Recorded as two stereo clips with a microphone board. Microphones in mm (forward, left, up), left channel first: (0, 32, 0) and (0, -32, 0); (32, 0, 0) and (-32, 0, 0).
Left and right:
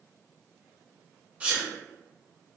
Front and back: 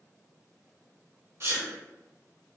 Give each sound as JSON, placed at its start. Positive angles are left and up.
{"t": 1.4, "sound": "a sneeze", "azimuth_deg": -150, "distance_m": 0.9}